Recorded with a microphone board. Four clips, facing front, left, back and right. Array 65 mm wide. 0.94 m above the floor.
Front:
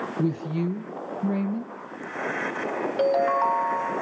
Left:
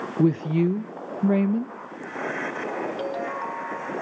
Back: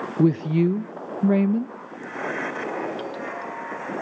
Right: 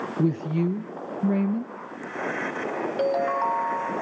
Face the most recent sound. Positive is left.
turn(degrees=-30)